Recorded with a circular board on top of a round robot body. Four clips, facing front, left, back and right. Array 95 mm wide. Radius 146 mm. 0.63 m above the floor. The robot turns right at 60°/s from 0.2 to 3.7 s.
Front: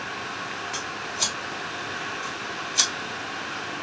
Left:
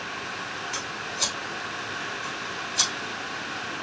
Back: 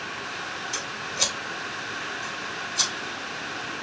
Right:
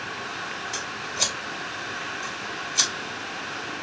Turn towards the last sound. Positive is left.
turn(degrees=10)